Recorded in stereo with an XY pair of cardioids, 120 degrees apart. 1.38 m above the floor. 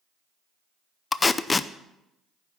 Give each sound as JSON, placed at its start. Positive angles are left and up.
{"t": 1.1, "sound": "tape being pulled", "azimuth_deg": 20, "distance_m": 0.6}